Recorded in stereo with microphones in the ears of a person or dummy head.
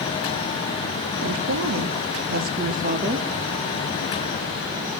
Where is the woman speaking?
85° right, 2.5 m; by 3.3 s 35° right (ahead or behind), 3 m.